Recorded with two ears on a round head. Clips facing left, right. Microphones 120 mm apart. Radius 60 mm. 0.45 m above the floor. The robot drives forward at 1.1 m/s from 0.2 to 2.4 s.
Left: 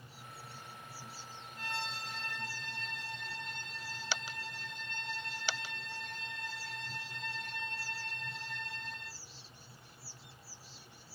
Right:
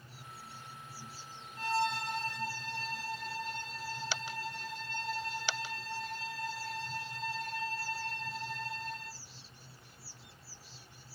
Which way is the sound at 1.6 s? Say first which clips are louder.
Right 10 dB; 30° right (ahead or behind).